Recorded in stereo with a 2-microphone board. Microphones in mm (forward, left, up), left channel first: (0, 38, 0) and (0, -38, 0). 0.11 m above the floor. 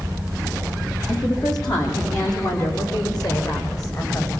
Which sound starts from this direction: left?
A woman speaking, at 1.1 s.